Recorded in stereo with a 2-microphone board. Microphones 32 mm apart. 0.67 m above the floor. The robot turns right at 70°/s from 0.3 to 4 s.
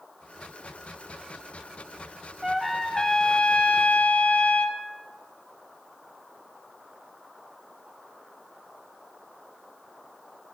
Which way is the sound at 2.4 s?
20° right.